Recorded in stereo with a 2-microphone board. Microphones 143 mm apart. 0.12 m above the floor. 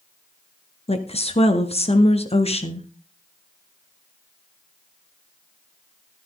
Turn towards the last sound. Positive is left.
turn(degrees=45)  # may be behind; listen again after turning